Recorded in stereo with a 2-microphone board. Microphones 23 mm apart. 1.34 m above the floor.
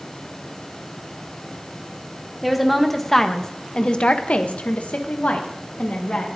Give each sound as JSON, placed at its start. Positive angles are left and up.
{"t": 2.4, "sound": "a woman speaking", "side_deg": 5, "distance_m": 1.3}